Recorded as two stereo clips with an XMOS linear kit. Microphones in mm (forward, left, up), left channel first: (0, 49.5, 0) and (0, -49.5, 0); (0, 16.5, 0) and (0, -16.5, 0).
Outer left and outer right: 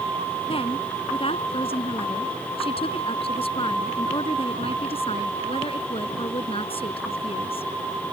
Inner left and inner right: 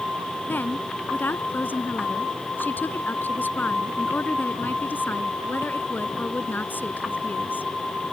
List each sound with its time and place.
0.5 s a woman speaking: 70° left (ahead or behind)